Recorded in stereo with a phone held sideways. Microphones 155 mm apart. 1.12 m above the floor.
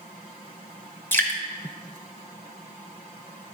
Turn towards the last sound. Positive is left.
turn(degrees=15)  # may be behind; listen again after turning